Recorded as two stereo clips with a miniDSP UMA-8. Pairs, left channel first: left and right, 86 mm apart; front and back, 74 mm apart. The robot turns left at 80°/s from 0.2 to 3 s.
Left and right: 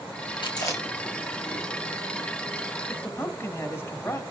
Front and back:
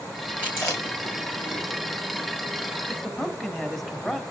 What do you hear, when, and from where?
0.4 s chewing: 65° left, 5.5 m; by 2.3 s 85° right, 5.5 m
2.9 s a man speaking: 90° left, 1.7 m; by 4.2 s 80° left, 1.7 m